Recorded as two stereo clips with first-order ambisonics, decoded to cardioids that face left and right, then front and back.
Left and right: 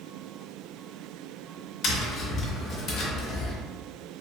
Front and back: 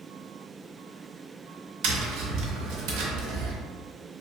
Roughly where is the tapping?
Behind left.